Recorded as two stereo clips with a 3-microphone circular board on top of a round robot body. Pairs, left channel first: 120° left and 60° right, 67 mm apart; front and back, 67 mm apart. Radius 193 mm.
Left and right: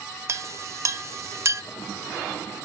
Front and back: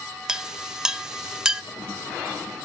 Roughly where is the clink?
Right.